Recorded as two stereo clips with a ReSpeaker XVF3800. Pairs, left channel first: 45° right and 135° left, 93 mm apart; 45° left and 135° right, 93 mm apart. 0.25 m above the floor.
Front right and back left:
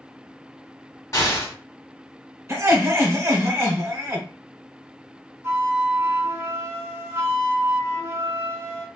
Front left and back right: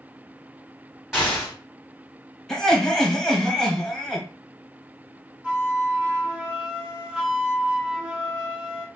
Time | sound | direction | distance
1.1 | an explosion | 50° right | 1.8 m
2.5 | laughter | 125° left | 1.0 m
5.4 | a flute | 160° left | 0.7 m